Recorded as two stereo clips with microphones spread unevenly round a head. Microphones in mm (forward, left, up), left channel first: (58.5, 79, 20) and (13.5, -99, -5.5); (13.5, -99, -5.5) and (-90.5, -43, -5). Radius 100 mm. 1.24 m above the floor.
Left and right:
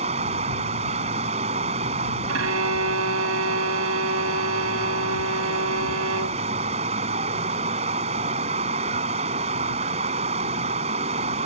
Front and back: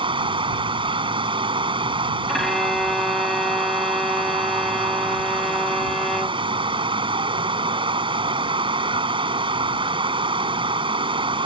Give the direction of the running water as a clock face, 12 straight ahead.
6 o'clock.